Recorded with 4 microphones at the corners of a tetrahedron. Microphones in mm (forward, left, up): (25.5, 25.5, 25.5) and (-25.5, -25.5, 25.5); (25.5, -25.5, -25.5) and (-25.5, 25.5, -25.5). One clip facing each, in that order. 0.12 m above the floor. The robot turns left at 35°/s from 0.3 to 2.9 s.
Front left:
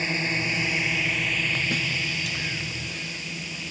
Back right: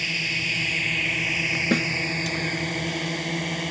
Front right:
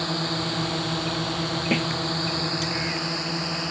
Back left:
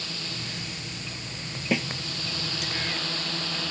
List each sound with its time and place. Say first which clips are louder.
0.0 s a drone: front left 2 dB, front right 11 dB; 10° right; by 3.7 s 110° right
1.7 s a snare drum: back right 6 dB, front right 1 dB; 140° right; by 1.9 s 145° right